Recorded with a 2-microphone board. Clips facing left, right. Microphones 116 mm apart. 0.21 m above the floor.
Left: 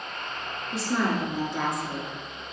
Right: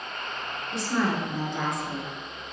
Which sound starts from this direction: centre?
A woman speaking, at 0.7 s.